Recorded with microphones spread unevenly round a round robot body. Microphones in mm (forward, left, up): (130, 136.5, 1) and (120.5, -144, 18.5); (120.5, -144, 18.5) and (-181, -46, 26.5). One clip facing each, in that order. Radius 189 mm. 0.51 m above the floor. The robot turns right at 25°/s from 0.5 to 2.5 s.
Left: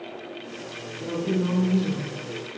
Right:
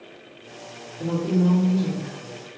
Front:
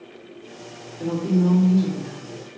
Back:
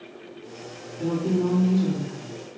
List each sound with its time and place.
1.0 s a woman speaking: 165° left, 1.5 m; by 2.2 s 165° right, 1.5 m